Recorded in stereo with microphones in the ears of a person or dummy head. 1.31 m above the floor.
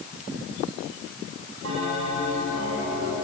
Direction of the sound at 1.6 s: 85° right.